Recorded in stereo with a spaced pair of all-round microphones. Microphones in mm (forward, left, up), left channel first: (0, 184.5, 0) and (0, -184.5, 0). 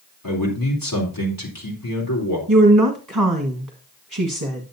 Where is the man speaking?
65° left (ahead or behind), 3.5 m.